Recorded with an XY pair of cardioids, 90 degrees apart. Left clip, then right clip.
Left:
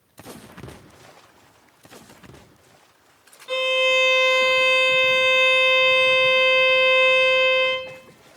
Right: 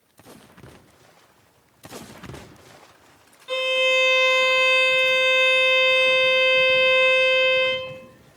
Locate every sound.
3.5 s a violin: 5° left, 1.5 m